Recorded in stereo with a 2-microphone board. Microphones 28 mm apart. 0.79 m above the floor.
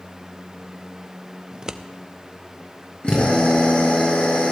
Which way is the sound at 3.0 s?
45° left (ahead or behind).